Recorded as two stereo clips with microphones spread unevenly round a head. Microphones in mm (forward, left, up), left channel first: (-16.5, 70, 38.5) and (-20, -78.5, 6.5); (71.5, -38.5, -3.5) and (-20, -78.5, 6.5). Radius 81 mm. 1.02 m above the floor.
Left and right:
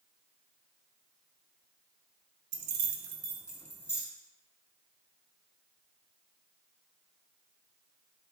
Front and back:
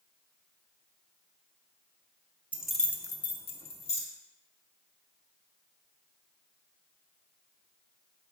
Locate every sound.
2.5 s keys jangling: 80° right, 0.6 m; by 4.0 s 15° left, 0.8 m